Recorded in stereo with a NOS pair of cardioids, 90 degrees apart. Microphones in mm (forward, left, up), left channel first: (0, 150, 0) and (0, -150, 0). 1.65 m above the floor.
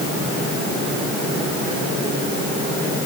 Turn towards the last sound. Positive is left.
No sound to turn to.